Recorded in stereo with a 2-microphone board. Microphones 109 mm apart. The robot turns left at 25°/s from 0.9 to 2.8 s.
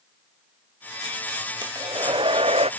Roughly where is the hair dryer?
Right.